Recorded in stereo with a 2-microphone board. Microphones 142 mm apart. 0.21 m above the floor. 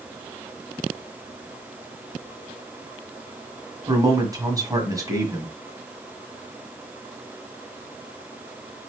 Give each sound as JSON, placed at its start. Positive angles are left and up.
{"t": 3.9, "sound": "a man speaking", "side_deg": -25, "distance_m": 1.7}